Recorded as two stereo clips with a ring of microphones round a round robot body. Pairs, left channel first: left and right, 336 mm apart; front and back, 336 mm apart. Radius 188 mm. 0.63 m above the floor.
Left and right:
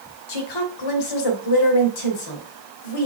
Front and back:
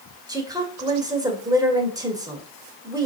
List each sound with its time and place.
0.3 s a woman speaking: 100° left, 2.5 m